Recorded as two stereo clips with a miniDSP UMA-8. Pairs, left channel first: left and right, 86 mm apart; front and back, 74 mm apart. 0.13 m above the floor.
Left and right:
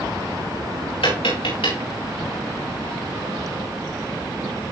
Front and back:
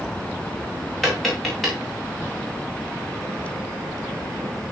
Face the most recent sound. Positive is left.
turn(degrees=90)